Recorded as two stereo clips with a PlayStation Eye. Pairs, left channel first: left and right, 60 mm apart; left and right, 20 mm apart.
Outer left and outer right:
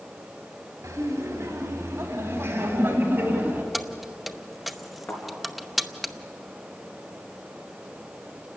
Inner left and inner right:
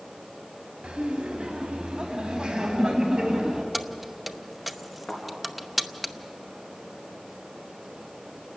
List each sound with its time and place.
0.8 s laughter: 65° right (ahead or behind), 3 m; by 3.6 s 35° right (ahead or behind), 3.5 m
3.7 s keys jangling: 5° right (ahead or behind), 0.7 m
5.1 s a thud: 35° left (ahead or behind), 4.5 m